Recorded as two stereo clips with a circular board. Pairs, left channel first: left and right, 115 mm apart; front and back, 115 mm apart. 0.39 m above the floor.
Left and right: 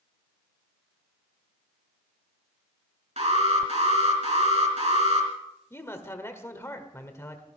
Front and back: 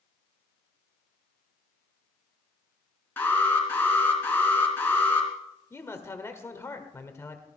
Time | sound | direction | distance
3.2 | an alarm | 70° right | 3.5 m
5.7 | a man speaking | 45° left | 1.6 m